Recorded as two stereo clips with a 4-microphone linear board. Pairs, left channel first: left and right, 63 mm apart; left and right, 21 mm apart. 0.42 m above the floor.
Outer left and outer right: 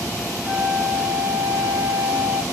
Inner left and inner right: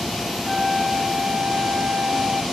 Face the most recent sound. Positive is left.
turn(degrees=-35)  # may be behind; listen again after turning